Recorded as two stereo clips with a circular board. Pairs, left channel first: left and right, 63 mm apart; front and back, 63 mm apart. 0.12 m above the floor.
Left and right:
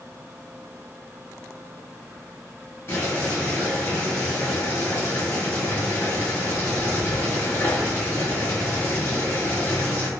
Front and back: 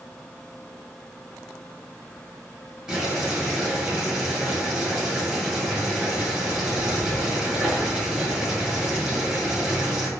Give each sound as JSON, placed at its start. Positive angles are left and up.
{"t": 2.9, "sound": "boiling", "azimuth_deg": 110, "distance_m": 1.5}